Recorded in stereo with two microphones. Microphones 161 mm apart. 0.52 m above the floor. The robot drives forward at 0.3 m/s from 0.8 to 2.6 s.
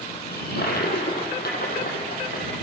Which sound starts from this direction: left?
A toilet flushing, at 0.3 s.